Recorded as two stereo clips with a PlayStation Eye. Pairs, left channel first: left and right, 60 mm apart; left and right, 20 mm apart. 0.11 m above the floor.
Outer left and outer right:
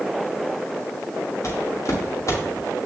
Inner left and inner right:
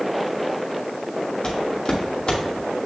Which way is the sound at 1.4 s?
55° left (ahead or behind).